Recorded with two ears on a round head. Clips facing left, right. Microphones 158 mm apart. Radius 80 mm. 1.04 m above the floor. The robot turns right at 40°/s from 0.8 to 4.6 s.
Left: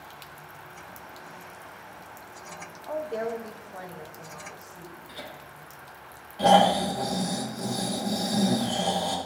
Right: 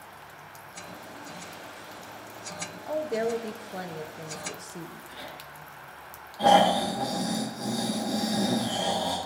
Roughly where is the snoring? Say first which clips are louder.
Left 1 dB; left.